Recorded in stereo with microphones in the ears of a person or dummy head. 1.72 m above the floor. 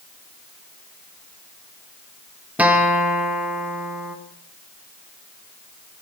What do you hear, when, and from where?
2.6 s a guitar: 5° right (ahead or behind), 2.5 m